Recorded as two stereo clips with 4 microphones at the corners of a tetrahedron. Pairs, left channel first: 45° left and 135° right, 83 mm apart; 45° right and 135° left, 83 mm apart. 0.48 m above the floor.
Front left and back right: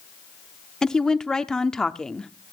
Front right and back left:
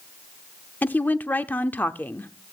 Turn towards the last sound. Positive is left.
turn(degrees=-30)